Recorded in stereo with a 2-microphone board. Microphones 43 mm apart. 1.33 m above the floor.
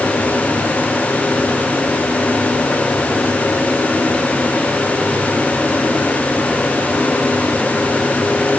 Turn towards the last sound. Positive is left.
No sound to turn to.